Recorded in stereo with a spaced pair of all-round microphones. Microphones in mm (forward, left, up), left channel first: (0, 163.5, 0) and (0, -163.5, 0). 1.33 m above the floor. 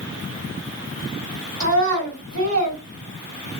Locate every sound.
1.6 s a child speaking: 85° left, 2 m